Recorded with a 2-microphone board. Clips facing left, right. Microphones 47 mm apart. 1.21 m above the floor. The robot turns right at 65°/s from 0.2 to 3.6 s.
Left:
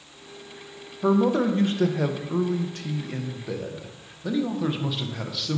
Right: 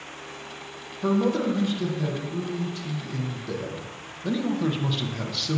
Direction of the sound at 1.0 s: 5° left.